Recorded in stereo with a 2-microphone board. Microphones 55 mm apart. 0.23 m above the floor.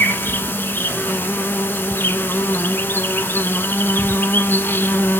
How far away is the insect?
About 1.0 m.